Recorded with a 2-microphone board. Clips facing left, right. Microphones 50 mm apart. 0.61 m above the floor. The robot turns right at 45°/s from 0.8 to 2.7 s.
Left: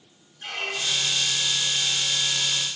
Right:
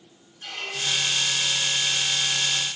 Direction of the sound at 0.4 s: 25° left (ahead or behind).